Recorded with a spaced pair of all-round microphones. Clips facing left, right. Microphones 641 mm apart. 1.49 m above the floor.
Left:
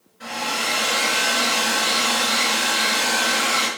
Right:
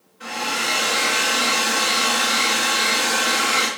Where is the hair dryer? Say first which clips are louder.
Right 1 dB; 30° left (ahead or behind), 4 m.